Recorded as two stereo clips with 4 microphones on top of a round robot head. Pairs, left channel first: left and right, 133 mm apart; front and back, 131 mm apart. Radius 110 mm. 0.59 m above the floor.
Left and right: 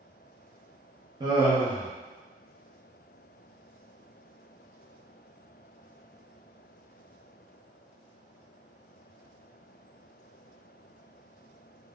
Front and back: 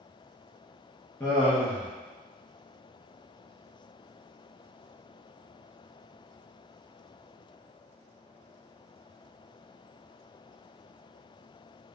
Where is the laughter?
65° right, 0.7 m.